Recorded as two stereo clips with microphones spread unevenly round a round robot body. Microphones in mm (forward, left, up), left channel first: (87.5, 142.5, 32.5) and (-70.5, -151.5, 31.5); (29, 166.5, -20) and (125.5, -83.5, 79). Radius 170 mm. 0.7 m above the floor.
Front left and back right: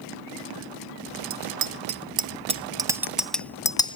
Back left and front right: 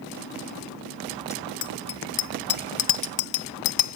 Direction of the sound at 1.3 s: 170° right.